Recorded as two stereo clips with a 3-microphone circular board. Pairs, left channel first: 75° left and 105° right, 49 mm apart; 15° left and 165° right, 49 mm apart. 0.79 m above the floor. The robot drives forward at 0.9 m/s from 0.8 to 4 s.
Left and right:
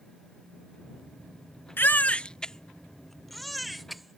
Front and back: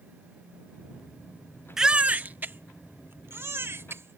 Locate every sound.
1.8 s a baby crying: 115° left; by 4.2 s 165° left